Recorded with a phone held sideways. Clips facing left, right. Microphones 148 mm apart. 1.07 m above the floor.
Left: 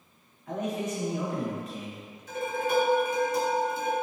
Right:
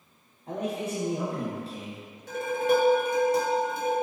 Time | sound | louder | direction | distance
0.5 | a man speaking | even | 30° right (ahead or behind) | 0.7 m
2.3 | dishes clattering | right 4 dB | 75° right (ahead or behind) | 0.9 m